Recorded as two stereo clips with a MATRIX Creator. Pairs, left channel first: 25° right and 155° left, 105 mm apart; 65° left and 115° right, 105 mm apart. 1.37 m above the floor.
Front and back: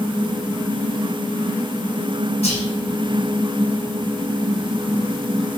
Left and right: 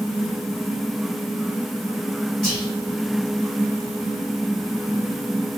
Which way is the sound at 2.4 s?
20° right.